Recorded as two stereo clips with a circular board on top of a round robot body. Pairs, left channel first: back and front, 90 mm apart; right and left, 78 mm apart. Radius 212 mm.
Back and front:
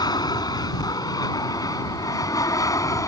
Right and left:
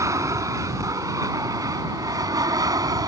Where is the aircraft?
140° left; by 3.1 s 125° left.